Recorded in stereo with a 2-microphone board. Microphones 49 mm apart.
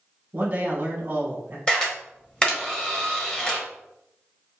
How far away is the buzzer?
No buzzer in this recording.